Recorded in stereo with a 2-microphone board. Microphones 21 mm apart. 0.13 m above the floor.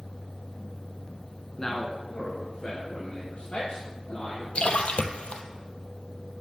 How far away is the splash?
About 0.6 m.